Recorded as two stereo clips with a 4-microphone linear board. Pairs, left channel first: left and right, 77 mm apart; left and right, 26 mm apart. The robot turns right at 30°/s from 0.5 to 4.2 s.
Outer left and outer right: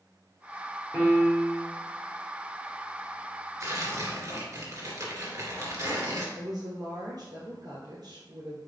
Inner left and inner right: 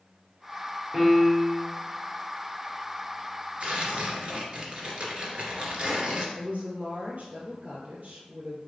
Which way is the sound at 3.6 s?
45° right (ahead or behind).